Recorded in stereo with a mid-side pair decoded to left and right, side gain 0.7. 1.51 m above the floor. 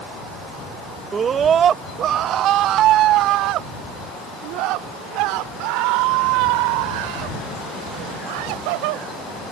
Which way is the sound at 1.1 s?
30° right.